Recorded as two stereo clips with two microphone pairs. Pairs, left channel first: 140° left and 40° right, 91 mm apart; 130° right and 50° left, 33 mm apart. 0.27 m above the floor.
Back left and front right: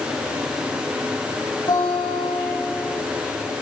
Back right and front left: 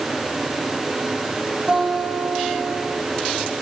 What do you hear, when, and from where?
1.7 s a guitar: 110° left, 9 m